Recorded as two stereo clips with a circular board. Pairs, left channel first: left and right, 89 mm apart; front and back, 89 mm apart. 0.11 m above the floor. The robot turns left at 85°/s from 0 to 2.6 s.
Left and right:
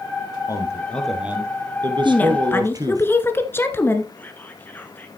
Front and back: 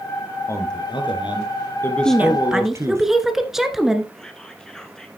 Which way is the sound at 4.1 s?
70° left.